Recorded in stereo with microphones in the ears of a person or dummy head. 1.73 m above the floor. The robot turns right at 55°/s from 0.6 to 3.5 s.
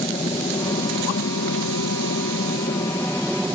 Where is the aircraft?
20° left; by 3.5 s straight behind.